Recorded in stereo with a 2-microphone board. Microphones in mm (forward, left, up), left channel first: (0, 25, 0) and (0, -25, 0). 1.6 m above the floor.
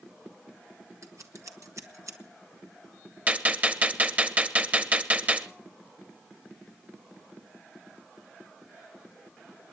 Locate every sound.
1.0 s scissors: 70° right (ahead or behind), 1.6 m
3.3 s a gunshot: 25° right (ahead or behind), 1.2 m